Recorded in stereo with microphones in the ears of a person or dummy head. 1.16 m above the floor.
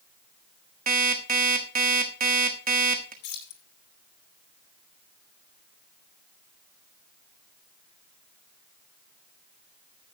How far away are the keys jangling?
About 2.5 m.